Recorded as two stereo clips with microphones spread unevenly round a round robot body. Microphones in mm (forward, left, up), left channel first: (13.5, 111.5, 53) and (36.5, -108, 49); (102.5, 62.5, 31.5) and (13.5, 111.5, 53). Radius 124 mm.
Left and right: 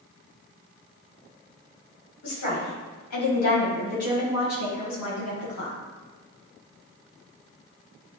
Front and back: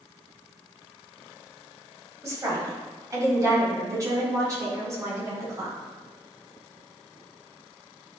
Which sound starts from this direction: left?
A woman speaking, at 2.2 s.